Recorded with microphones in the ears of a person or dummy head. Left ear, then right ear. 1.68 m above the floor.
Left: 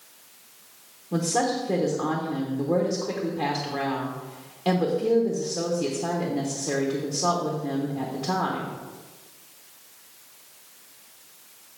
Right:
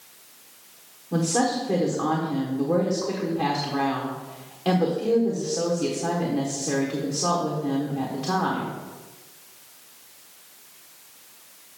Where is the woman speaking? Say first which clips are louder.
Right 1 dB; 5° left (ahead or behind), 1.0 m.